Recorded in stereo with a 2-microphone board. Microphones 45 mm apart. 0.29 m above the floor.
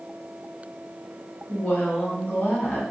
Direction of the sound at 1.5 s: 40° left (ahead or behind).